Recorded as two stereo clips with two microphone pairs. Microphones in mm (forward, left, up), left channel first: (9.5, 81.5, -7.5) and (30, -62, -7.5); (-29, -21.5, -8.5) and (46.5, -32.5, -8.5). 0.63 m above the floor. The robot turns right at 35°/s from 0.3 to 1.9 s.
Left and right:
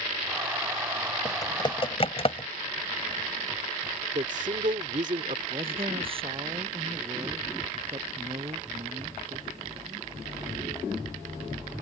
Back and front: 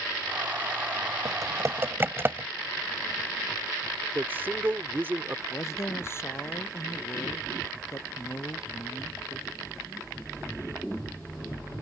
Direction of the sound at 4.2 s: 65° right.